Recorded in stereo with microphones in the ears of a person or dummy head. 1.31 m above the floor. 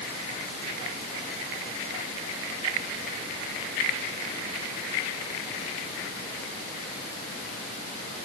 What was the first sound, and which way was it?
Only background noise.